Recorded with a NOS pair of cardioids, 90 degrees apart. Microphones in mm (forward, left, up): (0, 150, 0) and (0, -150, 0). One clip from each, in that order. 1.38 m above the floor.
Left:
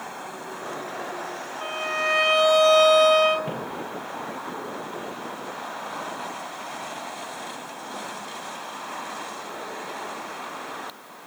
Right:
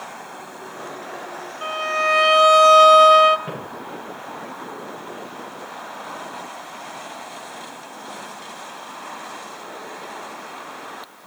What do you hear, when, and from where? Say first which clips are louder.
1.6 s a violin: right 5 dB; 25° right, 1.0 m
3.5 s footsteps: left 1 dB; 5° left, 7 m